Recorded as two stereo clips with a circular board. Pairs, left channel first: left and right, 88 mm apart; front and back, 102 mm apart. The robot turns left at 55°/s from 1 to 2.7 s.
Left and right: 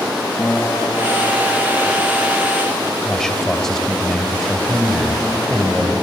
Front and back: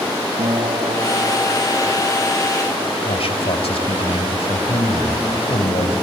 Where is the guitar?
160° left, 2.5 m; by 2.1 s 100° left, 2.5 m.